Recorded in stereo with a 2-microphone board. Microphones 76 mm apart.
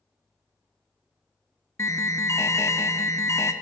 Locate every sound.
1.8 s an alarm: 40° left (ahead or behind), 0.7 m